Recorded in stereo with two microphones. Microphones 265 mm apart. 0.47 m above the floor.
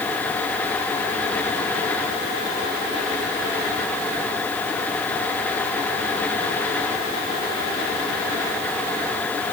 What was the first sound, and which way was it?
Only background noise.